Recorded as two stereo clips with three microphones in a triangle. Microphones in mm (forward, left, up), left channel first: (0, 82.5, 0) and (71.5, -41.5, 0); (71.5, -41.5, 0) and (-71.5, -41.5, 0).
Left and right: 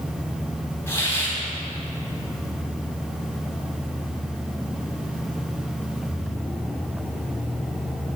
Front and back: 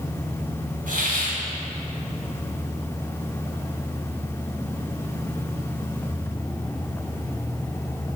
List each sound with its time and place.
0.9 s a hiss: 170° right, 2.5 m